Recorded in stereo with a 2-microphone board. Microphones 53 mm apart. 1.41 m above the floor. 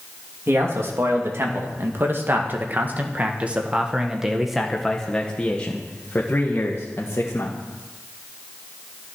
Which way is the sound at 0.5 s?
55° right (ahead or behind).